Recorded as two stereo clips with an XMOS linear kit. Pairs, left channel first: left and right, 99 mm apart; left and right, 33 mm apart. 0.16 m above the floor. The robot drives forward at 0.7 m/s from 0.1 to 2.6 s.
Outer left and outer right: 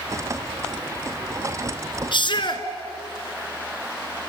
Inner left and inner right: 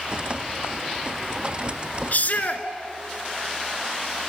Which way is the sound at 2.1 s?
55° left (ahead or behind).